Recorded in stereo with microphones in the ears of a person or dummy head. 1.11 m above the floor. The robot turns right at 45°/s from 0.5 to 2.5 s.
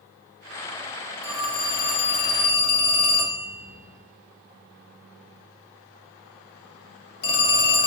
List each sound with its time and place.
1.2 s a phone ringing: 10° right (ahead or behind), 1.8 m; by 7.9 s 45° left (ahead or behind), 1.8 m